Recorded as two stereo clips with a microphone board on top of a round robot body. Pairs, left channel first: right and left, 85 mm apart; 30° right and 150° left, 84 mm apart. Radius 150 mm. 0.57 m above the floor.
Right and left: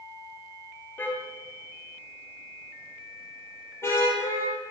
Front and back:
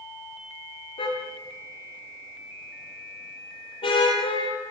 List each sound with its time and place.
1.0 s a car horn: 20° right, 6.5 m; by 4.5 s 30° right, 11 m